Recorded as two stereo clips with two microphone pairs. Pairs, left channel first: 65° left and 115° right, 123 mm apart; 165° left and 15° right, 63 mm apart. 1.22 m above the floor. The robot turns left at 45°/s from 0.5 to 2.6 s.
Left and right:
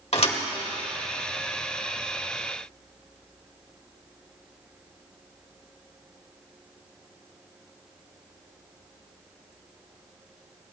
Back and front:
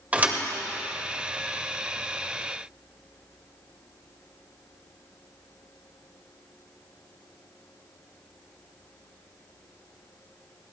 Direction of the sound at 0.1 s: 45° left.